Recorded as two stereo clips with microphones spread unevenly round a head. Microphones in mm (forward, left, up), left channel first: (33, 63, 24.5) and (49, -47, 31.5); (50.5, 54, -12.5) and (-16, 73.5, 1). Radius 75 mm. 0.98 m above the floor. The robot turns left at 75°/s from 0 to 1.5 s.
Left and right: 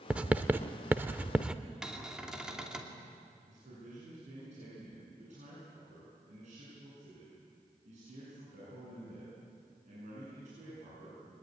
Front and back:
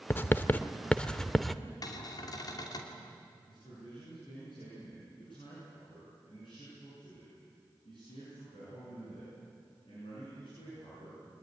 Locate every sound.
0.1 s writing: 30° right, 0.6 m; by 1.6 s 135° right, 0.6 m
1.8 s a cupboard door: 5° left, 3 m
3.5 s a man speaking: 65° right, 9 m